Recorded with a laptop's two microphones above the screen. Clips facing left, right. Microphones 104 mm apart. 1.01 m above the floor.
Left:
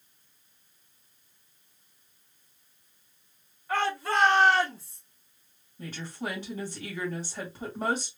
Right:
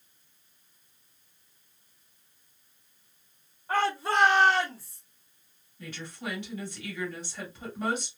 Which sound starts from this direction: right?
A shout, at 3.7 s.